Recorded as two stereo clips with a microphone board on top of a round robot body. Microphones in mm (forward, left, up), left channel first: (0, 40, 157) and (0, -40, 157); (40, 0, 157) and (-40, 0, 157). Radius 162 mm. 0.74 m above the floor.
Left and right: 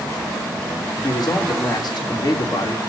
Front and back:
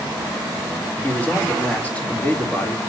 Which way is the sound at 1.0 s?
70° left.